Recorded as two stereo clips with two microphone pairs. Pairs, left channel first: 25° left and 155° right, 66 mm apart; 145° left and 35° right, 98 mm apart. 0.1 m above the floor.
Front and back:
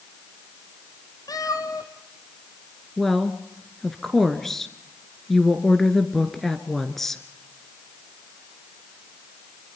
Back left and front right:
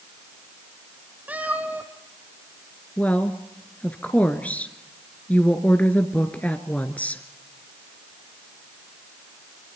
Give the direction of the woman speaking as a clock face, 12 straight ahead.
9 o'clock.